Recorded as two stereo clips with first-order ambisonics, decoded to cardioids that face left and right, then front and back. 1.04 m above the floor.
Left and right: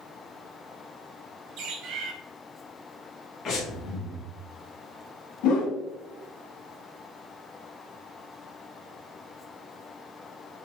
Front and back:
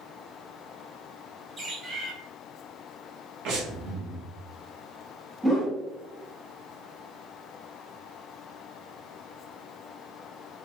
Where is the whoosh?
95° left, 1.3 m.